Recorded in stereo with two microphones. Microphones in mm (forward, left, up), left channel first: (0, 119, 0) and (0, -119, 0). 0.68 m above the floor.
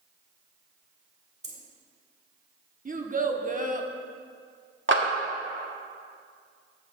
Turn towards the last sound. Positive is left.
turn(degrees=-55)  # may be behind; listen again after turning